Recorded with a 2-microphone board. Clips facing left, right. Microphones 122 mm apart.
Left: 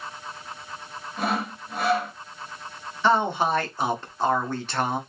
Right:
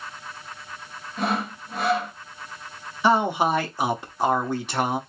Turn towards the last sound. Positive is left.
turn(degrees=-10)  # may be behind; listen again after turning